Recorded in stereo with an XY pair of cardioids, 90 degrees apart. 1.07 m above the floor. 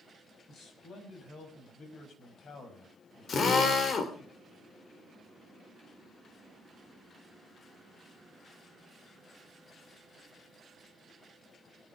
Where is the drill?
55° left, 3.5 m.